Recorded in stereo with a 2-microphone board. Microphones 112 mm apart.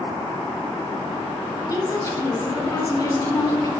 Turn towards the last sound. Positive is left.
turn(degrees=30)  # may be behind; listen again after turning